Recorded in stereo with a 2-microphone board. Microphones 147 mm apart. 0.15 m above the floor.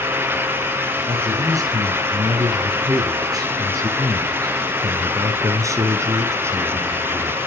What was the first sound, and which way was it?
A man speaking, 25° right (ahead or behind).